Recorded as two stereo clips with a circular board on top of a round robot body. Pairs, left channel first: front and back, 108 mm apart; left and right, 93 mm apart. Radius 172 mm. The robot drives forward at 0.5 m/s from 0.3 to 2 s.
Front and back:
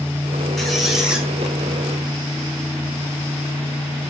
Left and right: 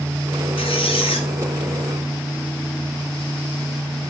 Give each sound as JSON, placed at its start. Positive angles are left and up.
{"t": 0.6, "sound": "a squeak", "azimuth_deg": 85, "distance_m": 2.0}